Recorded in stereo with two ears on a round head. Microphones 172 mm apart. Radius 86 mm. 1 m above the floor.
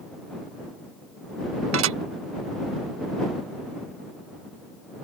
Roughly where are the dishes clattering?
Right.